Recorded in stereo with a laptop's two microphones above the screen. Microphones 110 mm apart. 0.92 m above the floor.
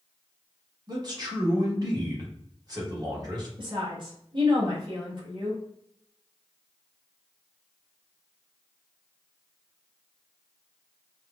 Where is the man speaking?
40° right (ahead or behind), 1.3 m.